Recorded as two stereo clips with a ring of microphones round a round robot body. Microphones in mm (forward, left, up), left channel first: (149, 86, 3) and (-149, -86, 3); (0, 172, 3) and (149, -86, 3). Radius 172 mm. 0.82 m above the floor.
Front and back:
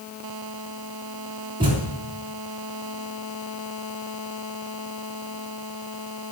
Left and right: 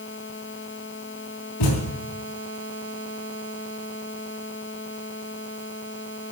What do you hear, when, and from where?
1.6 s a thud: 135° left, 3 m